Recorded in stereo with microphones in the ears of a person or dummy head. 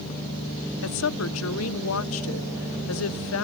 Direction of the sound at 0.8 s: 75° left (ahead or behind).